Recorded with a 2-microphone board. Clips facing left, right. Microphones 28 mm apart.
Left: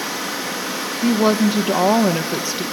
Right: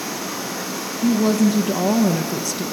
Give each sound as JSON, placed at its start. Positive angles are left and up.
{"t": 0.0, "sound": "running water", "side_deg": 50, "distance_m": 6.0}
{"t": 1.0, "sound": "a woman speaking", "side_deg": 30, "distance_m": 0.7}